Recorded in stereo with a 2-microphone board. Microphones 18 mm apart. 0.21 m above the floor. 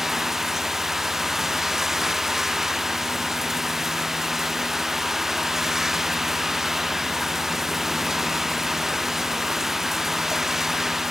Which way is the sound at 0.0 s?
20° right (ahead or behind).